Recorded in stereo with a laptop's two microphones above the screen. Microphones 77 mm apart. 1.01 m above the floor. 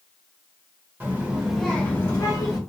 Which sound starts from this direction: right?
A child speaking, at 1.0 s.